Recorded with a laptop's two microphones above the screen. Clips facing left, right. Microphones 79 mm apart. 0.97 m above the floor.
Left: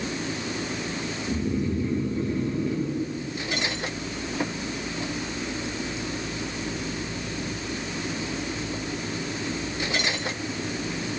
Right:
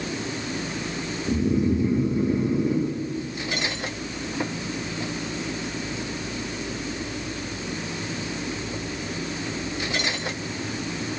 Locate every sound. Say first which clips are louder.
1.3 s snoring: right 5 dB; 15° right (ahead or behind), 1.1 m